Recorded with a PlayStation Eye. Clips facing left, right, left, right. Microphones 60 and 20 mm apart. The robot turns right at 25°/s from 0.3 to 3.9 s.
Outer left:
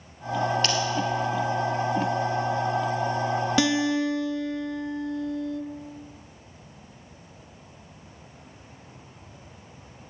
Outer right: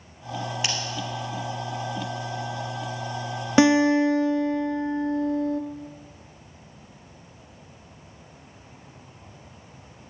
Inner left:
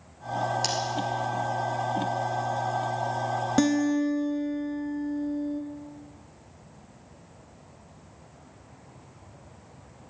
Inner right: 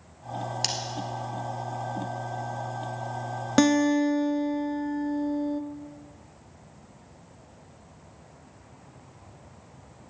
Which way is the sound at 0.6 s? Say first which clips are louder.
Outer left 3 dB, inner right 4 dB; 10° right (ahead or behind).